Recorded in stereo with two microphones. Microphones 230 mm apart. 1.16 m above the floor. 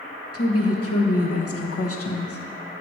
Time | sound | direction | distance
0.3 | a woman speaking | 70° left (ahead or behind) | 1.1 m